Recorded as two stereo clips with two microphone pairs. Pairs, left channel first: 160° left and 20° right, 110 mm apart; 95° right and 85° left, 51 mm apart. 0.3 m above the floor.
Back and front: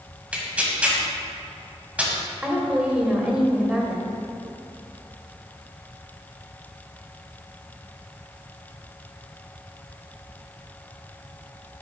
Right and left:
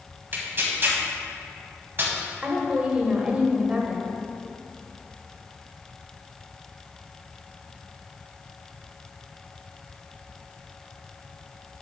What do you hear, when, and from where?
0.3 s tearing paper: 55° left, 1.9 m
2.4 s a woman speaking: 50° left, 1.4 m